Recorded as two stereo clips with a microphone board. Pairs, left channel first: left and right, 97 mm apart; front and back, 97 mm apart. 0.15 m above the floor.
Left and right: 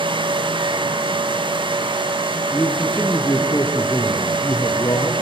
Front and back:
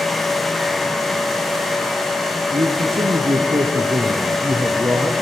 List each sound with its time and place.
2.5 s a man speaking: 170° left, 3.5 m; by 5.1 s 120° left, 2.5 m